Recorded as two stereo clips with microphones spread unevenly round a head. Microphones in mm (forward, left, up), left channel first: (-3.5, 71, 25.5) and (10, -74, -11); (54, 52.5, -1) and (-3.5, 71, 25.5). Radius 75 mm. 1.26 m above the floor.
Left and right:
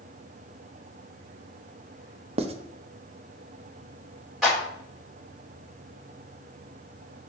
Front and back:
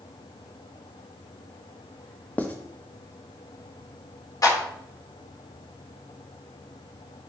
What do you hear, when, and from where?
2.4 s writing: 120° right, 0.5 m
4.4 s a clap: 5° left, 3.5 m